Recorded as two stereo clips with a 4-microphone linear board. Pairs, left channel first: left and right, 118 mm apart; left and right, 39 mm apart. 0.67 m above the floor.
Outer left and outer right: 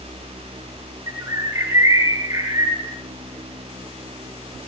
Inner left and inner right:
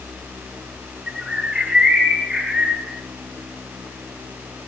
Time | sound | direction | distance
1.1 | a bird | 25° right (ahead or behind) | 8 m